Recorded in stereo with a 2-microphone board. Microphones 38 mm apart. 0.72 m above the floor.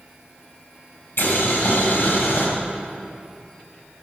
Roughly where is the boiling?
Left.